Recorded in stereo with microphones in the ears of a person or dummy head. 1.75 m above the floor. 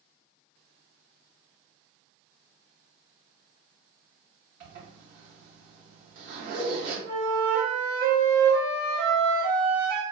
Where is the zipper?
45° right (ahead or behind), 1.6 m.